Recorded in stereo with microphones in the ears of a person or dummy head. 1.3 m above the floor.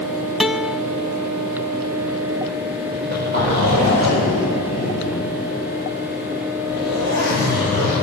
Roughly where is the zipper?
Right.